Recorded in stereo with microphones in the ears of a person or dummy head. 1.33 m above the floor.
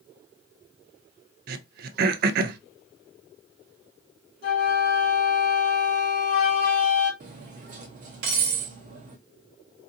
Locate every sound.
1.5 s throat clearing: 55° right (ahead or behind), 0.5 m
4.4 s a flute: 70° left (ahead or behind), 2.5 m
7.2 s cutlery clinking: 50° right (ahead or behind), 0.8 m